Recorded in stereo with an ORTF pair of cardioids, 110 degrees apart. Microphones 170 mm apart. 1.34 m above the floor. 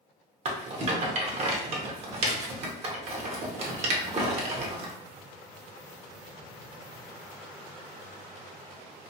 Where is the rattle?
40° right, 0.8 m.